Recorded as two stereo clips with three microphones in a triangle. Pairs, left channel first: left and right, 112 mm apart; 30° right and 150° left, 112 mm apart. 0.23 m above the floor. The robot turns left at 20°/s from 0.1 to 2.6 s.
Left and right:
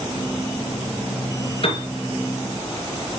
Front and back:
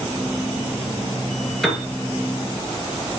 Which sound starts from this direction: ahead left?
A piano, at 1.6 s.